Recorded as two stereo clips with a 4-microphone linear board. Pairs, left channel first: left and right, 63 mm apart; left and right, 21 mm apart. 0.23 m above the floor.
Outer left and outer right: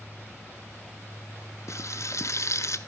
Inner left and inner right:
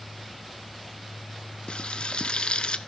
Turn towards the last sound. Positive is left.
turn(degrees=50)  # may be behind; listen again after turning